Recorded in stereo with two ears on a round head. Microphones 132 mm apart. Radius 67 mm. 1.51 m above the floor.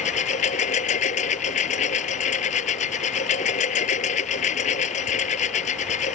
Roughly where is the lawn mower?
Left.